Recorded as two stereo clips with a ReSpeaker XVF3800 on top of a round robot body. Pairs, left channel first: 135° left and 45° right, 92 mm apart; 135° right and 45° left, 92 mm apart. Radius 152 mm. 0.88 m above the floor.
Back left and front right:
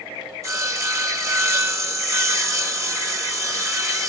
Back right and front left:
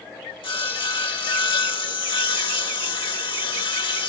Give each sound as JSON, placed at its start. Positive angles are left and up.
{"t": 0.4, "sound": "sawing", "azimuth_deg": -100, "distance_m": 1.3}